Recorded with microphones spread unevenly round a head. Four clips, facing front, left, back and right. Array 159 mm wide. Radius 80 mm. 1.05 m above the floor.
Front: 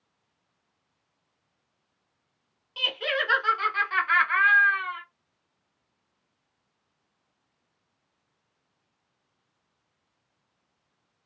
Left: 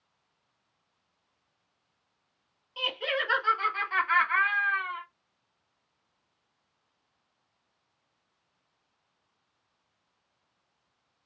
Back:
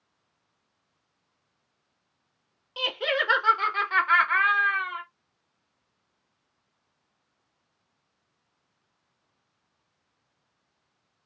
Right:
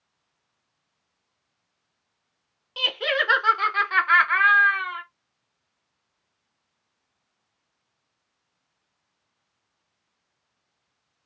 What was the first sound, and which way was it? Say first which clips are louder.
Laughter: right 5 dB, back 2 dB; 95° right.